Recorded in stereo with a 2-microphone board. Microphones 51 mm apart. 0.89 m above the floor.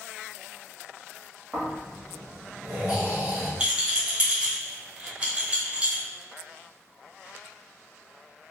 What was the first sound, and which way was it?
Snoring, 30° right (ahead or behind).